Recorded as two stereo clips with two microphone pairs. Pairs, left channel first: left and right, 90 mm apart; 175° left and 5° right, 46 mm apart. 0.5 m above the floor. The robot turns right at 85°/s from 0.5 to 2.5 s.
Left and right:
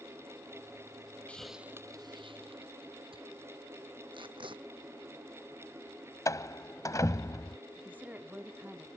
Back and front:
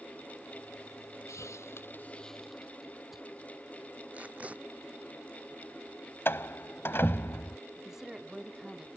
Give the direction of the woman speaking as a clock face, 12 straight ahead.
2 o'clock.